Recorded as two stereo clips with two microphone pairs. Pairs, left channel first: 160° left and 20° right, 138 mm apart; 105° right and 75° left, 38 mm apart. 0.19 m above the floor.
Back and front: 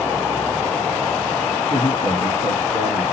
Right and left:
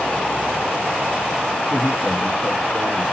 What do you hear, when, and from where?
1.7 s a man speaking: 155° left, 2.5 m